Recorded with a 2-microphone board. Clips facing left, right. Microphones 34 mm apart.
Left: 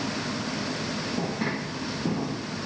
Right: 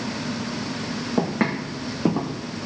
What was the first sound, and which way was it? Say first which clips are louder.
Footsteps: right 9 dB; 70° right (ahead or behind).